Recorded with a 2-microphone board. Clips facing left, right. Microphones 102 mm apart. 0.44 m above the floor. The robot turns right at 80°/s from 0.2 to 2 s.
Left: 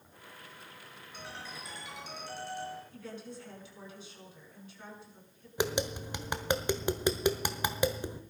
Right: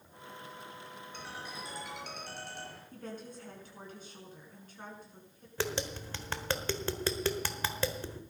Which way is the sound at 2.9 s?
45° right (ahead or behind).